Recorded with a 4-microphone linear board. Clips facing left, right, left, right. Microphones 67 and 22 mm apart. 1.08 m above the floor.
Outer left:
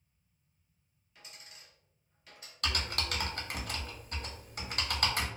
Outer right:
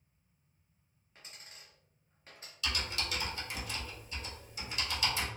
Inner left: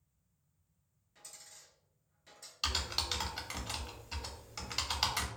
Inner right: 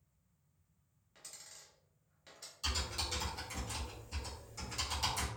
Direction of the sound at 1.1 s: 35° right (ahead or behind).